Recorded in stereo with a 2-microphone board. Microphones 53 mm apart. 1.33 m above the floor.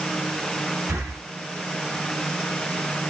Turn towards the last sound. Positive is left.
turn(degrees=-75)  # may be behind; listen again after turning